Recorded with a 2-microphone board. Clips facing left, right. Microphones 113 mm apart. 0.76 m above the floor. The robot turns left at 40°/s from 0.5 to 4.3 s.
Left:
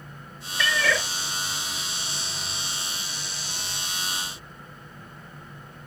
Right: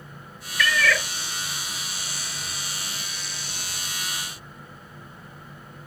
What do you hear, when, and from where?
0.6 s a cat meowing: 25° left (ahead or behind), 0.5 m; by 1.1 s 15° left (ahead or behind), 0.5 m